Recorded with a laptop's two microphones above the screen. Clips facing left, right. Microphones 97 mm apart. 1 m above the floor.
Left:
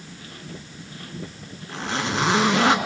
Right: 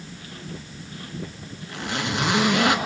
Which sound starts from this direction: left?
A zipper, at 1.7 s.